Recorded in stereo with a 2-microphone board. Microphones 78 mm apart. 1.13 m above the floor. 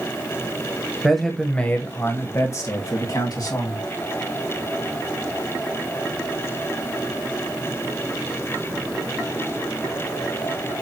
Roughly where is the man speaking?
Centre.